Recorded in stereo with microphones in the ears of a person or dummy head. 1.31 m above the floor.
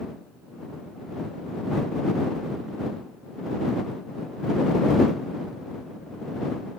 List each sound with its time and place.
Only background noise.